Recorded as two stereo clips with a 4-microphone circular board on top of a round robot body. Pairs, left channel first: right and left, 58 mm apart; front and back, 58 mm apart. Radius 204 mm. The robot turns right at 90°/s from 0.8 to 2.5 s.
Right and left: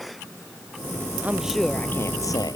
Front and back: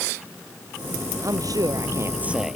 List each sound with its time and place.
1.2 s a woman speaking: 150° left; by 2.6 s 95° right